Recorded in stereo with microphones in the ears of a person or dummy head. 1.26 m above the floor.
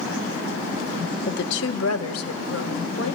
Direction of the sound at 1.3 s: 55° left (ahead or behind).